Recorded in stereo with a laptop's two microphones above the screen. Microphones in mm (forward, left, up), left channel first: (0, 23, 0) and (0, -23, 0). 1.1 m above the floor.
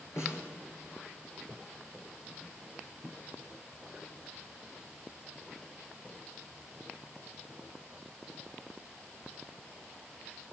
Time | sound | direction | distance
0.2 | a snare drum | 80° left | 6.5 m